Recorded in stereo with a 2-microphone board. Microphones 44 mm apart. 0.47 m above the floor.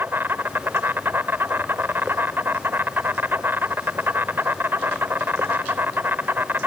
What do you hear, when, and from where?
0.0 s an insect: 50° right (ahead or behind), 0.9 m